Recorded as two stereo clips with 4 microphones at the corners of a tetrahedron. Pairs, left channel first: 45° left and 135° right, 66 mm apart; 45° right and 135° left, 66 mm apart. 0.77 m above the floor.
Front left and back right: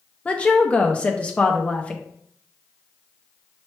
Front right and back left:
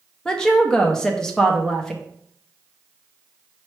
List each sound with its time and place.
0.2 s a woman speaking: 15° left, 0.6 m